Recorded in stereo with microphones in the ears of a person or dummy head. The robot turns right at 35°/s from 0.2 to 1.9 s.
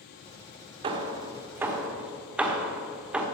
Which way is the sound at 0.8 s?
25° right (ahead or behind).